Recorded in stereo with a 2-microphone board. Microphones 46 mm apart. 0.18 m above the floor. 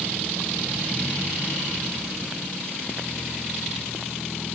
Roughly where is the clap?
No clap in this recording.